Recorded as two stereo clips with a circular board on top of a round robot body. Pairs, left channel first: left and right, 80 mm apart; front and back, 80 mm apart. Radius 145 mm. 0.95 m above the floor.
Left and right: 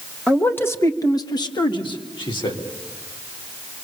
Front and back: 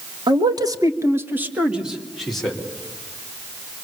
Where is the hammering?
I don't hear hammering.